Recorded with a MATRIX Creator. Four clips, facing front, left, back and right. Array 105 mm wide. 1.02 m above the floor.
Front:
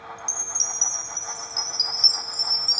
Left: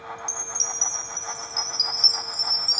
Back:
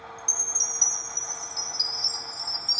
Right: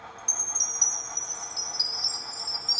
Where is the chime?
40° left.